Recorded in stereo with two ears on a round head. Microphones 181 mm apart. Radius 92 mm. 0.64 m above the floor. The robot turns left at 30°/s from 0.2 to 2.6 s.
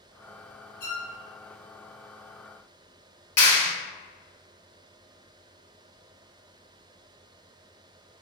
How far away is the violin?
About 1.3 m.